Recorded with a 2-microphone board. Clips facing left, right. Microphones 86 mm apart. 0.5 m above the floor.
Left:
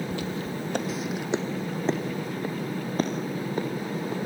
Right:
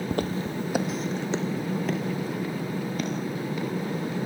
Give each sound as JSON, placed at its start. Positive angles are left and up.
{"t": 0.1, "sound": "footsteps", "side_deg": -55, "distance_m": 1.1}